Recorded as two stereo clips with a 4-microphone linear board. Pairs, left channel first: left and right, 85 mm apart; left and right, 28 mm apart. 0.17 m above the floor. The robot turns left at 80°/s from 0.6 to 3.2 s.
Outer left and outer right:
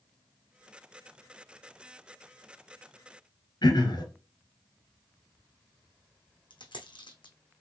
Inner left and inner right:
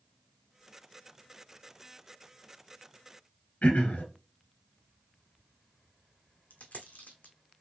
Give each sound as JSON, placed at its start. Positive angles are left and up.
{"t": 3.6, "sound": "throat clearing", "side_deg": 60, "distance_m": 1.4}
{"t": 6.5, "sound": "a dropped coin", "side_deg": 85, "distance_m": 0.8}